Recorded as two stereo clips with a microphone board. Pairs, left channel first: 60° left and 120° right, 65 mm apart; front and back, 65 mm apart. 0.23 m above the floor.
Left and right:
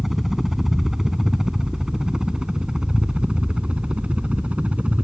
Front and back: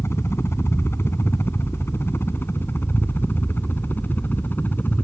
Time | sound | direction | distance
0.0 | a helicopter | 35° right | ?